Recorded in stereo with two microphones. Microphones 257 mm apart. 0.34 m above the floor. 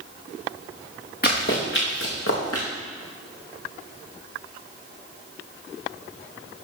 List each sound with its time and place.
1.2 s running footsteps: 40° left (ahead or behind), 2.5 m; by 2.7 s 65° left (ahead or behind), 2 m